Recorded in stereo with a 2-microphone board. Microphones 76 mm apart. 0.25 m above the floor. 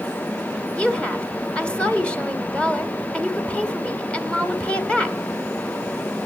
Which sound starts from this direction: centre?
A woman speaking, at 0.8 s.